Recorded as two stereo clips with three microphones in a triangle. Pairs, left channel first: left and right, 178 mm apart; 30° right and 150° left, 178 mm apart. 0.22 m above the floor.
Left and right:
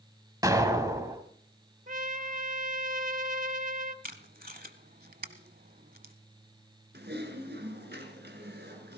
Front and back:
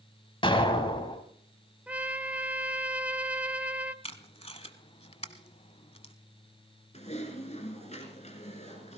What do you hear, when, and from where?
0.4 s an explosion: 40° right, 1.4 m
1.9 s a trumpet: 125° right, 0.7 m
4.0 s tape being pulled: 80° right, 0.9 m
6.9 s typing on a keyboard: 80° right, 2.5 m